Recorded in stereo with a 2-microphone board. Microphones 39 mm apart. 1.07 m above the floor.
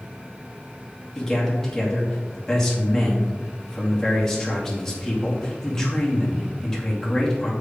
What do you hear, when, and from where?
1.1 s a man speaking: 15° left (ahead or behind), 2.5 m